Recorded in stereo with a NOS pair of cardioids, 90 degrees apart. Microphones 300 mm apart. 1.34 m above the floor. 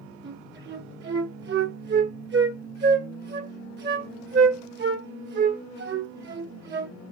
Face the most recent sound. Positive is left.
turn(degrees=-35)